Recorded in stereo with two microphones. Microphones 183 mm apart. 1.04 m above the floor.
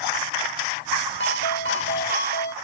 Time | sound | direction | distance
1.2 | a ringtone | 75° left (ahead or behind) | ?